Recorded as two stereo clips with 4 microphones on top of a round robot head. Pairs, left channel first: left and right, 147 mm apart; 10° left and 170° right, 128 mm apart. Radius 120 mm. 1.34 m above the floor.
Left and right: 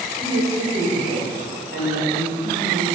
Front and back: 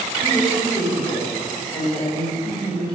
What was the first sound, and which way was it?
A woman speaking, 100° right.